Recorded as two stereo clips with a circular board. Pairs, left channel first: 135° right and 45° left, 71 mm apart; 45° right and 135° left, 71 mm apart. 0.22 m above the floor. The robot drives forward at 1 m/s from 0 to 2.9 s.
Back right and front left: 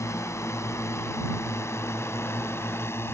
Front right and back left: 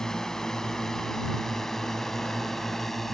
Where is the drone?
125° right; by 3.1 s 130° right.